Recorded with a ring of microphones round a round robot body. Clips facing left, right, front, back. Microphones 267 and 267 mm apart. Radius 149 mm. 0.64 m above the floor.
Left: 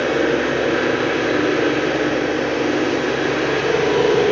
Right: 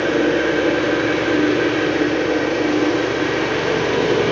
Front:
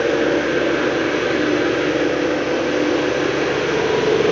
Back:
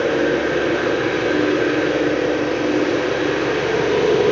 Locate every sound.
0.0 s an engine running: 70° right, 1.8 m